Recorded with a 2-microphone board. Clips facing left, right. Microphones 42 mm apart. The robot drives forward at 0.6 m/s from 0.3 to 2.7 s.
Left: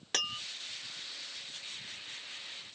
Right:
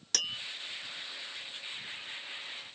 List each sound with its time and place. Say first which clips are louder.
0.1 s tapping: left 1 dB; 25° left (ahead or behind), 1.0 m